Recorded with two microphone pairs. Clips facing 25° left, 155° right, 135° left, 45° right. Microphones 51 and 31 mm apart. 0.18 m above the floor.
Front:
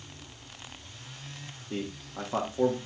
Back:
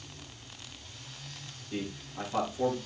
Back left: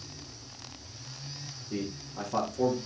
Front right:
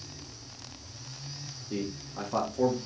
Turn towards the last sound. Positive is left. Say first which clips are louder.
# front 1 dB, front right 1 dB
turn(degrees=15)